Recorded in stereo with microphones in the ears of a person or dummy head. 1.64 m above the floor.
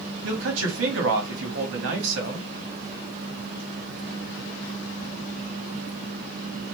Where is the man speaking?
75° right (ahead or behind), 1.6 m.